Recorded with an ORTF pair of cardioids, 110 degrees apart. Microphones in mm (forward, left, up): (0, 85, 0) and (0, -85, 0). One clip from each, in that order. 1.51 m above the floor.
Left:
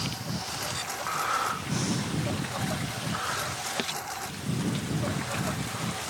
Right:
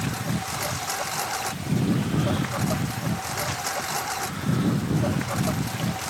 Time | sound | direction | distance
0.0 | a lawn mower | 40° right | ?